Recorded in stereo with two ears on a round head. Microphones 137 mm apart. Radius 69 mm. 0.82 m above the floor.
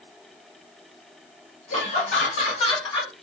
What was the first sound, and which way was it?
Laughter, 55° left (ahead or behind).